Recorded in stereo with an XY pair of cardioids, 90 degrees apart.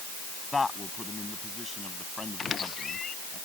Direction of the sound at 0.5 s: 20° left.